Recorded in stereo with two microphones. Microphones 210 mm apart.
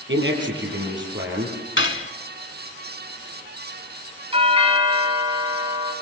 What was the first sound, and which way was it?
A man speaking, 65° right (ahead or behind).